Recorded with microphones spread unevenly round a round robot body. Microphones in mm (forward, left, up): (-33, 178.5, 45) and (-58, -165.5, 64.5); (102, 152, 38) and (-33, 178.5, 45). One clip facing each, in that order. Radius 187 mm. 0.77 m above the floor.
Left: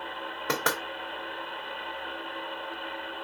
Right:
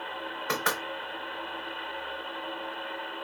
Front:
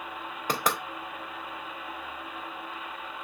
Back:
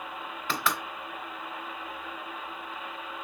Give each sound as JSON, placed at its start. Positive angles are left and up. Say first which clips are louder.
{"t": 0.5, "sound": "knocking", "louder": "left 3 dB, front 2 dB", "azimuth_deg": 40, "distance_m": 2.5}